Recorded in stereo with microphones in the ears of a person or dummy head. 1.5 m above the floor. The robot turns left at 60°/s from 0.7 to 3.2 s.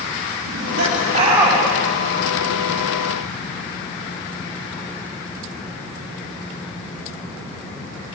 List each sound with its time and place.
0.5 s laughter: 120° right, 4 m; by 1.6 s 170° right, 4 m